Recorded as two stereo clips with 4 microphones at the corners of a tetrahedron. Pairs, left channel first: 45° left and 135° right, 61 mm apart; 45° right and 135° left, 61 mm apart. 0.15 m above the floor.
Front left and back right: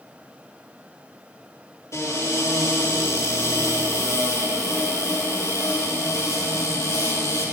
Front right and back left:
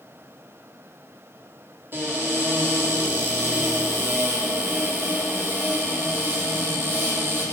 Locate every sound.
1.9 s a cupboard door: 80° left, 5 m